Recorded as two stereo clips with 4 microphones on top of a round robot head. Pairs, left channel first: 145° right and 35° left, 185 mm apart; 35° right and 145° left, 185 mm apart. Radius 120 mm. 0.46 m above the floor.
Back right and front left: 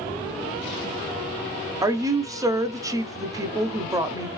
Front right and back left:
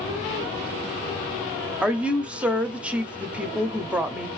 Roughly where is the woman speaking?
Left.